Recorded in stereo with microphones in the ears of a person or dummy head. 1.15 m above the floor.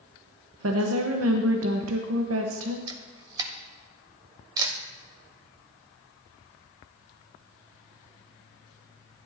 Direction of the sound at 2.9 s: 20° right (ahead or behind).